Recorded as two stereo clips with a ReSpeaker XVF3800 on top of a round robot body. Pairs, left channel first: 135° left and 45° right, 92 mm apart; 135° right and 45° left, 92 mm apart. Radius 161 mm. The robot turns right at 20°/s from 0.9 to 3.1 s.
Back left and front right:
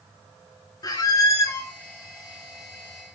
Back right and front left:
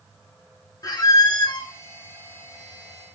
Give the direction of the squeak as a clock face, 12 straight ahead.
6 o'clock.